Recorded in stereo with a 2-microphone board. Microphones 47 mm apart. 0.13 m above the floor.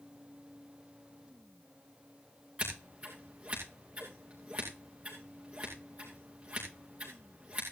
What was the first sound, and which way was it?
Scissors, 30° right (ahead or behind).